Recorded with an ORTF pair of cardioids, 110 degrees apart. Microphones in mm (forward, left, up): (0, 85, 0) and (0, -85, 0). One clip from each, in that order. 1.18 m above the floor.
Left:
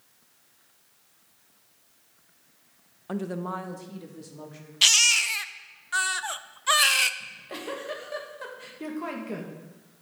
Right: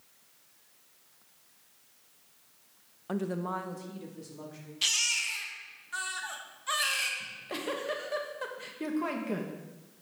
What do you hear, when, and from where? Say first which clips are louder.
3.1 s a woman speaking: left 1 dB; 5° left, 0.5 m; by 4.7 s 15° left, 2.5 m
4.8 s a baby crying: left 9 dB; 45° left, 0.5 m
7.2 s a giggle: right 1 dB; 10° right, 1.3 m